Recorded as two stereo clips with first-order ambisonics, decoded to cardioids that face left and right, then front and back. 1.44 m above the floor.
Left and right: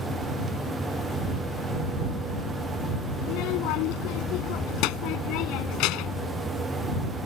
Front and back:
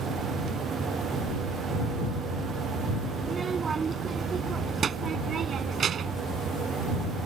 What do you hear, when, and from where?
3.2 s a child speaking: 110° left; by 6.3 s 120° left